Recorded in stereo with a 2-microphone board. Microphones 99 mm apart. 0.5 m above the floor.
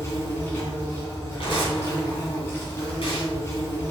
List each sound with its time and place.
0.0 s an insect: 25° left (ahead or behind), 2.5 m
1.4 s tearing paper: 60° left (ahead or behind), 3 m